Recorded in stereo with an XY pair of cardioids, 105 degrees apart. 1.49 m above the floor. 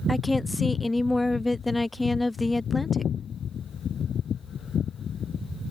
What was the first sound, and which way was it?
A woman speaking, 10° left.